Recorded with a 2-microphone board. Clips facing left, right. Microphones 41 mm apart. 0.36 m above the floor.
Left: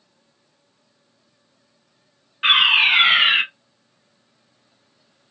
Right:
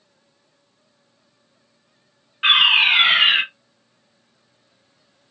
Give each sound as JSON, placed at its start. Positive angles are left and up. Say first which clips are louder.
{"t": 2.4, "sound": "a fire alarm", "louder": "right 1 dB", "side_deg": -5, "distance_m": 1.8}